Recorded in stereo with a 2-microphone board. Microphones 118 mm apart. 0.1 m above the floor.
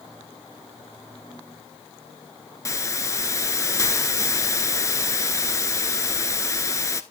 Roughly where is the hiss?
Left.